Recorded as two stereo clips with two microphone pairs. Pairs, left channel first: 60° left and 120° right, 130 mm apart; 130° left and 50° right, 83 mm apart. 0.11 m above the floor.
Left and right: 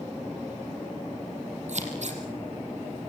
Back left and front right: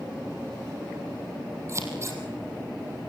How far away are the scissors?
About 4 m.